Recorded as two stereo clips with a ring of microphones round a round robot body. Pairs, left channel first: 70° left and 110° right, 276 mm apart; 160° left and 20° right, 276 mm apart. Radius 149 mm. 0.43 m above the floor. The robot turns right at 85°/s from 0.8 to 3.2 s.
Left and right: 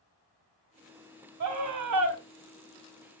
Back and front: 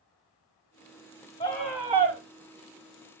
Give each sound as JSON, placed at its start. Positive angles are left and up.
{"t": 1.4, "sound": "a scream", "azimuth_deg": -140, "distance_m": 2.5}